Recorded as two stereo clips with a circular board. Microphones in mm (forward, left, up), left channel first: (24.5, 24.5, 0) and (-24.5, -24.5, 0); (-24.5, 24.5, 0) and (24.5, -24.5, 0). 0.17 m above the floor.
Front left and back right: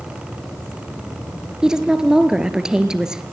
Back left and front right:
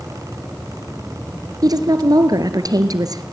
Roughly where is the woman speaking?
Ahead right.